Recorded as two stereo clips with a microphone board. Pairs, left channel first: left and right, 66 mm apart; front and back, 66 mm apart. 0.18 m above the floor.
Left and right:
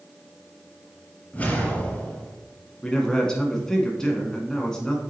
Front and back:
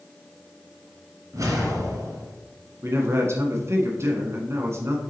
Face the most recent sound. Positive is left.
turn(degrees=165)